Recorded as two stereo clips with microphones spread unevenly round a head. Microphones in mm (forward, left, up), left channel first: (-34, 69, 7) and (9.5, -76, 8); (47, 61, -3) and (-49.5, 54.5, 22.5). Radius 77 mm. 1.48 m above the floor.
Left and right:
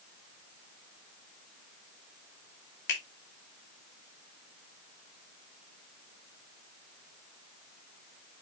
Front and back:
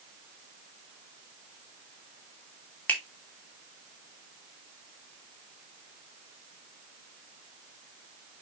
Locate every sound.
2.9 s a finger snap: 80° left, 3 m